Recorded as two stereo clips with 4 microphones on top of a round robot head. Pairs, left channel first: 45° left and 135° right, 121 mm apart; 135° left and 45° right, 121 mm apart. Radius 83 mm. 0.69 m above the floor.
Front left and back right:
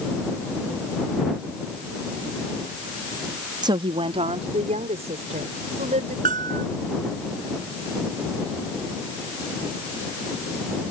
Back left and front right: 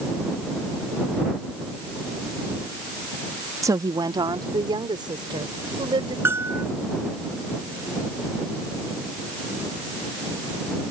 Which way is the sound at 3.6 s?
95° right.